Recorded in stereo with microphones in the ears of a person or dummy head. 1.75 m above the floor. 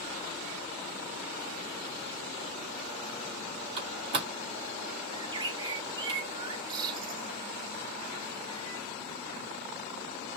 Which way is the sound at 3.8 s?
30° right (ahead or behind).